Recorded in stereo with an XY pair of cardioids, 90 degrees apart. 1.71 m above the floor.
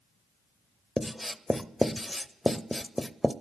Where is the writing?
5° left, 0.5 m.